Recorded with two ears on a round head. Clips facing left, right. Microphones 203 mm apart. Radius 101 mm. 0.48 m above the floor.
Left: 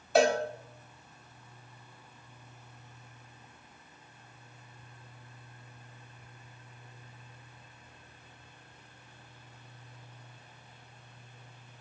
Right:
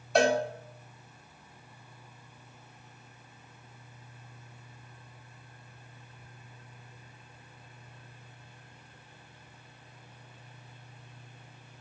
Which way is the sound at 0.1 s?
Centre (ahead or behind).